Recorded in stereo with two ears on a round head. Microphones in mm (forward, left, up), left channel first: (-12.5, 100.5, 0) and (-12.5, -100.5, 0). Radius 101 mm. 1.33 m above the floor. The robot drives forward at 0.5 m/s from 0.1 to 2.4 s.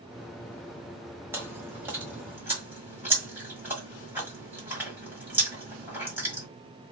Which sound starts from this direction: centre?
Chewing, at 1.3 s.